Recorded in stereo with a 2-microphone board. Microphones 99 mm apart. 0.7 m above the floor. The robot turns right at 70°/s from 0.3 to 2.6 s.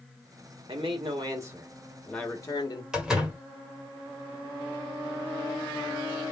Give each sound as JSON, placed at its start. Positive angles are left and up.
{"t": 0.7, "sound": "a man speaking", "azimuth_deg": -85, "distance_m": 1.5}
{"t": 2.9, "sound": "a door slam", "side_deg": -5, "distance_m": 1.3}